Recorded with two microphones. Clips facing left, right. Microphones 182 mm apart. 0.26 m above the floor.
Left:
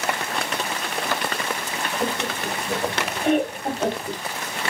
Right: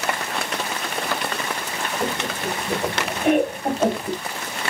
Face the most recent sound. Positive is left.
turn(degrees=-25)  # may be behind; listen again after turning